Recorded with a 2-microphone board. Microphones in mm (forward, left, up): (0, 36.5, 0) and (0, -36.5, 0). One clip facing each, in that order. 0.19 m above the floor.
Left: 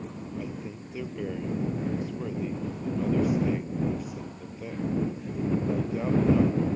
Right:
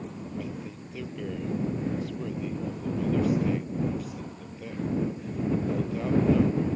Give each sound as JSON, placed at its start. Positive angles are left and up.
{"t": 0.4, "sound": "a man speaking", "side_deg": 15}